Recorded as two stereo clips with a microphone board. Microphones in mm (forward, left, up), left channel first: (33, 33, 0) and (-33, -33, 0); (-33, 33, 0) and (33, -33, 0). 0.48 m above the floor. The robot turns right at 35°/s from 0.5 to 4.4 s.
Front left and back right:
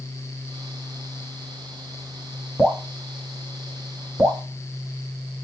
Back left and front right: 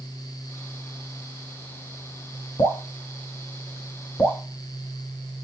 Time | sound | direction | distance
2.6 | dripping | 140° left | 1.6 m